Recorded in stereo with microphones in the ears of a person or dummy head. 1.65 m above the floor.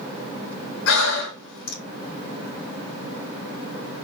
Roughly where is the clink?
No clink in this recording.